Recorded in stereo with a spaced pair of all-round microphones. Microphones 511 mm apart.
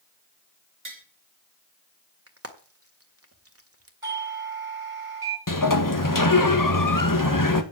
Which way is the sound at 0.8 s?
70° right (ahead or behind).